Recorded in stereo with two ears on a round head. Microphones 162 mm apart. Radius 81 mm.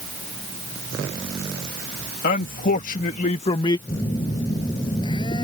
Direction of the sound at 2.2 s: 55° left (ahead or behind).